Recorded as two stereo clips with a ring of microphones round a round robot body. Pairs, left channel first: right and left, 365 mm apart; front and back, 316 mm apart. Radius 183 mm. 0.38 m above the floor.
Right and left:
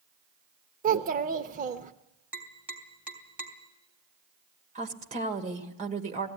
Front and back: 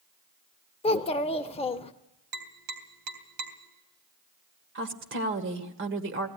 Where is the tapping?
175° left, 3 m.